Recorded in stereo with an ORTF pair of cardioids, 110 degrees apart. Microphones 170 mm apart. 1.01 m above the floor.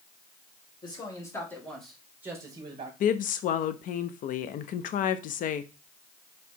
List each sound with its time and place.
0.8 s a man speaking: 25° left, 2.0 m; by 2.9 s 40° right, 1.3 m
3.0 s a woman speaking: 55° left, 0.6 m